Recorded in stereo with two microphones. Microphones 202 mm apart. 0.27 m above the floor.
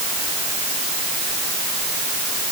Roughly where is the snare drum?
No snare drum in this recording.